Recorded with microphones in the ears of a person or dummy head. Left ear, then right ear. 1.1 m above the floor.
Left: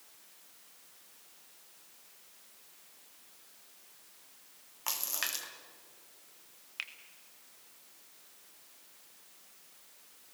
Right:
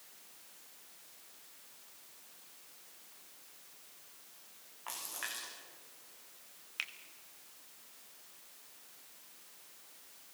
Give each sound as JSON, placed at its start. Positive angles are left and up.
{"t": 4.9, "sound": "a splash", "side_deg": 75, "distance_m": 2.5}
{"t": 6.8, "sound": "a finger snap", "side_deg": -5, "distance_m": 1.1}